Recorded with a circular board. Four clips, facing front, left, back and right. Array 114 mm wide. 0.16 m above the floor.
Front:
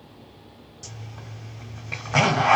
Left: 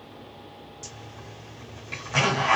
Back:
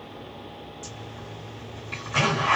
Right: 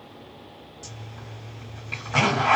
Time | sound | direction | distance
0.8 | a zipper | 10° right | 1.4 m